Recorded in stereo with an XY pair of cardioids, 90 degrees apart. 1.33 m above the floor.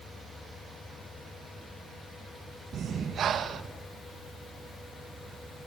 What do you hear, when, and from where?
2.7 s breathing: 70° right, 1.8 m